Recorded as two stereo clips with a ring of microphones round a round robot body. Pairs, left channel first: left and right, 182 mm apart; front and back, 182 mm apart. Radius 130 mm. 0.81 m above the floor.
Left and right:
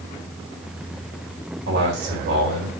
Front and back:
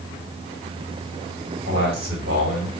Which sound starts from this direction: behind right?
A man speaking, at 1.7 s.